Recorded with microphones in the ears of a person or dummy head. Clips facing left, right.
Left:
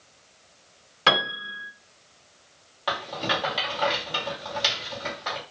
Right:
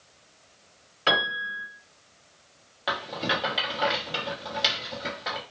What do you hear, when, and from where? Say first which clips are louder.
1.1 s a piano: left 2 dB; 65° left (ahead or behind), 1.3 m
2.9 s a rattle: left 1 dB; 5° right (ahead or behind), 0.9 m